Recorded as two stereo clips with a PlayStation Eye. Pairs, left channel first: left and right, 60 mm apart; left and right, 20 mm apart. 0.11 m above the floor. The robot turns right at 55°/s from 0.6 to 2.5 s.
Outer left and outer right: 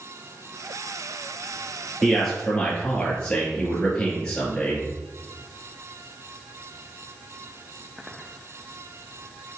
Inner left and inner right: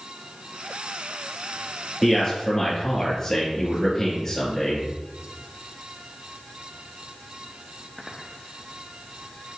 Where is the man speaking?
5° right (ahead or behind), 2.0 m; by 4.9 s 15° left (ahead or behind), 2.0 m.